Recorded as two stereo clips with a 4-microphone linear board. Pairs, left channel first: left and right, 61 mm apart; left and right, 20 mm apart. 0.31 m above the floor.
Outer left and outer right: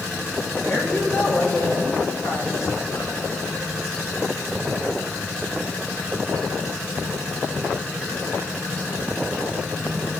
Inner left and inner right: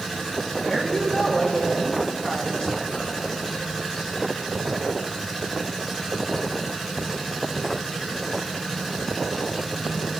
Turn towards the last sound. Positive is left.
turn(degrees=70)  # may be behind; listen again after turning